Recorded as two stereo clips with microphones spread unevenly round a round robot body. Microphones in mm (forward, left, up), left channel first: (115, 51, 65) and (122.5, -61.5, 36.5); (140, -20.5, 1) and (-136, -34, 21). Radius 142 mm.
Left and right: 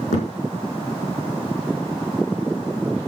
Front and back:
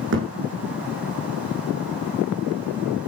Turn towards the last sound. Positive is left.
turn(degrees=130)